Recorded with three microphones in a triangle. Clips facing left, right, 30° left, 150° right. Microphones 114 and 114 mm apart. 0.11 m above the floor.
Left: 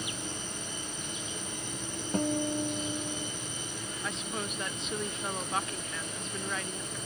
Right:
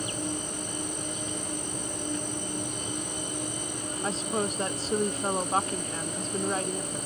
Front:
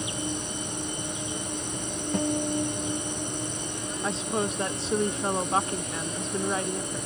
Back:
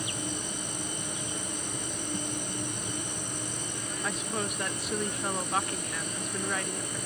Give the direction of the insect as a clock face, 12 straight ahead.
1 o'clock.